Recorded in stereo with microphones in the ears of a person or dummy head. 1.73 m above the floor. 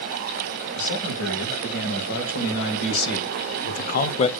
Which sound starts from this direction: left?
A man speaking, at 0.8 s.